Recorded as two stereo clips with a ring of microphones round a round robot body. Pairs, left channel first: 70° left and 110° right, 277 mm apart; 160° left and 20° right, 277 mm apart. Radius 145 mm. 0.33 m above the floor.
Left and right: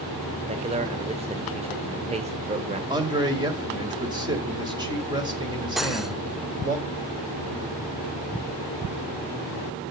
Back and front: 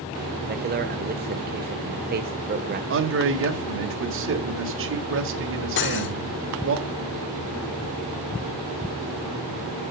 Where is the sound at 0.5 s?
55° right, 1.2 m.